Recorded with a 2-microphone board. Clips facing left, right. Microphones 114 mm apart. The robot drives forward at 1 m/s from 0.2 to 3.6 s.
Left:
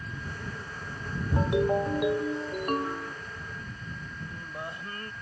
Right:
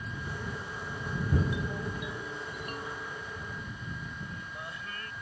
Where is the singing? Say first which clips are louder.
Left 3 dB; 35° left (ahead or behind).